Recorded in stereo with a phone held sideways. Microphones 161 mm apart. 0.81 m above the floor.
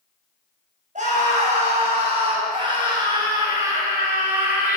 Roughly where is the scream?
Right.